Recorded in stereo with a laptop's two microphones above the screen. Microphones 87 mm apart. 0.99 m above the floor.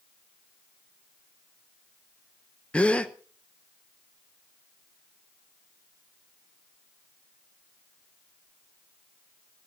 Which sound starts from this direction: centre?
A gasp, at 2.7 s.